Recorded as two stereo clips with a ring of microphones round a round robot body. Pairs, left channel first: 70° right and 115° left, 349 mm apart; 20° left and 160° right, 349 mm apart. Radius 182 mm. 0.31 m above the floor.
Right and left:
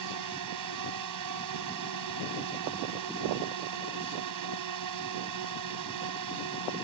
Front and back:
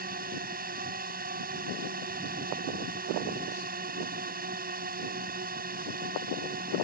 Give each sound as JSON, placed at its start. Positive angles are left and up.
{"t": 0.0, "sound": "a drone", "azimuth_deg": 140}